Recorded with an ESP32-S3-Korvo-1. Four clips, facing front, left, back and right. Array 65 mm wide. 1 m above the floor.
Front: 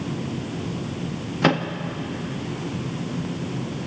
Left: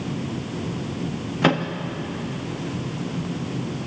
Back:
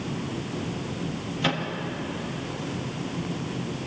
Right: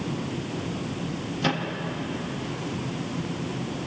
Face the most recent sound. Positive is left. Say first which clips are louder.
# left 7 dB, front 7 dB
turn(degrees=40)